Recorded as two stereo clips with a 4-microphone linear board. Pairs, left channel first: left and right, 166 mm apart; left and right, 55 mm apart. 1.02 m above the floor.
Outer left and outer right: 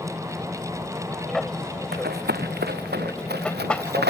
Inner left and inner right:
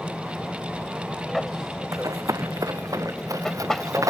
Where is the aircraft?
Centre (ahead or behind); by 4.1 s 5° left (ahead or behind).